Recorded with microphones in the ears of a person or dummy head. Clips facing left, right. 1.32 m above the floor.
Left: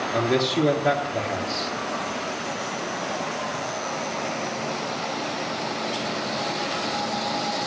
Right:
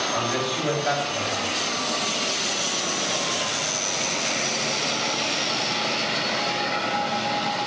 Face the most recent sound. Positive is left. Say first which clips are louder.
# left 9 dB
turn(degrees=60)  # may be behind; listen again after turning